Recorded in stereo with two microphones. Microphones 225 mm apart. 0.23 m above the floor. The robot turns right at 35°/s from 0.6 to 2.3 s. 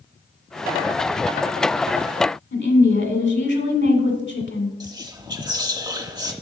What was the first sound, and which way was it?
A woman speaking, 55° left (ahead or behind).